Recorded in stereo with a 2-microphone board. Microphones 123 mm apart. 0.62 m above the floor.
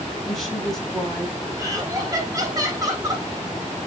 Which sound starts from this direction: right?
Laughter, at 1.6 s.